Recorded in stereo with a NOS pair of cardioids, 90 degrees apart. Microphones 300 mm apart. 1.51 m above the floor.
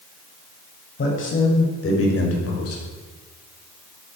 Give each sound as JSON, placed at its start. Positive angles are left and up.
{"t": 1.0, "sound": "a man speaking", "azimuth_deg": 40, "distance_m": 7.5}